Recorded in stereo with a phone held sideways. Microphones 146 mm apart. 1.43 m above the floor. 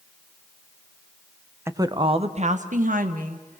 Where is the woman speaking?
15° right (ahead or behind), 1.0 m; by 3.6 s 80° right, 2 m.